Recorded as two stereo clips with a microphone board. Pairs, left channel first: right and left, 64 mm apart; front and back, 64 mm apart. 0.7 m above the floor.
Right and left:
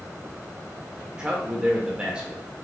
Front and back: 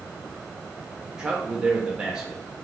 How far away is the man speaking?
About 0.8 m.